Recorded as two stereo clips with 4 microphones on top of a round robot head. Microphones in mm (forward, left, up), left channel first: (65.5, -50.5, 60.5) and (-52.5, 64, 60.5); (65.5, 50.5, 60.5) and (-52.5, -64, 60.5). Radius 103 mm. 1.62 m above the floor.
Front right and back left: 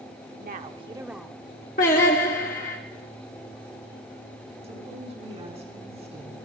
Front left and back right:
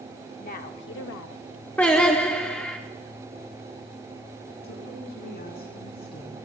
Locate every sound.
0.4 s a woman speaking: 95° left, 0.9 m; by 1.5 s 30° left, 0.8 m
1.8 s singing: 30° right, 1.3 m
4.6 s a woman speaking: 80° left, 4.5 m